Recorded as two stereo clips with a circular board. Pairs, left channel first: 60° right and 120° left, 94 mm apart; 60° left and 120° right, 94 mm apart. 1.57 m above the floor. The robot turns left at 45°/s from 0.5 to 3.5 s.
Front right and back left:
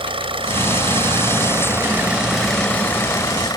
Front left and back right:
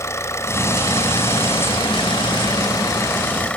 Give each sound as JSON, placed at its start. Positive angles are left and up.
{"t": 0.0, "sound": "an engine running", "azimuth_deg": 115}